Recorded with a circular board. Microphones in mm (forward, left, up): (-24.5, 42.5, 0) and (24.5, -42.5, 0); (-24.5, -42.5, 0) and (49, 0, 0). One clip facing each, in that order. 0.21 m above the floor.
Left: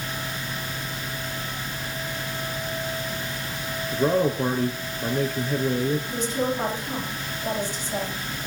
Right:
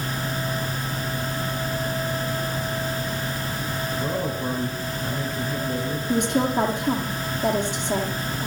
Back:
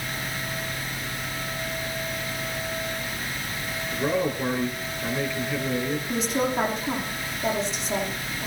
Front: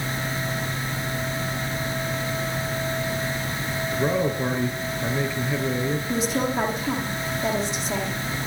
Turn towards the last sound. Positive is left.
turn(degrees=-55)